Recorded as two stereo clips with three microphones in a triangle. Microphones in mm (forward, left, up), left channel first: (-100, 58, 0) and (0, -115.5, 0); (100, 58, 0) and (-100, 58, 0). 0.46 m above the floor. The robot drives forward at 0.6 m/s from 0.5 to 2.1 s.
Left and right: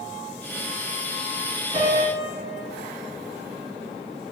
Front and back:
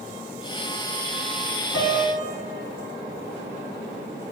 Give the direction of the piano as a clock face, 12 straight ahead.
4 o'clock.